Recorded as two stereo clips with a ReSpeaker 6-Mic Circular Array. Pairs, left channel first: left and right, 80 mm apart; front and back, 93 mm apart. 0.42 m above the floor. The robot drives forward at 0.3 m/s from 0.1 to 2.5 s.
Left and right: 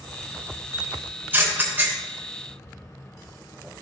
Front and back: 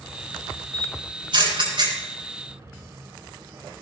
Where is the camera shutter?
155° right, 5 m.